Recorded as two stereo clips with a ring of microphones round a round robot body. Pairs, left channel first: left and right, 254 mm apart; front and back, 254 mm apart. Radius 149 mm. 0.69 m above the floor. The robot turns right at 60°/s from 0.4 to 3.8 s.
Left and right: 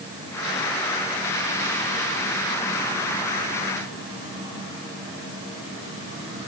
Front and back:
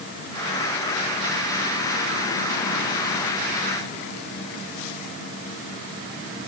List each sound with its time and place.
Only background noise.